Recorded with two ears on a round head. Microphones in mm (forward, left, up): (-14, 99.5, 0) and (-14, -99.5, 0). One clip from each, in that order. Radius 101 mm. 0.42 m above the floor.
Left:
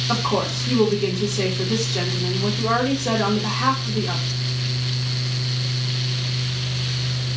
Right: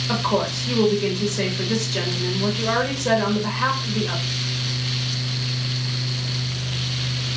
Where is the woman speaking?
25° right (ahead or behind), 1.4 m.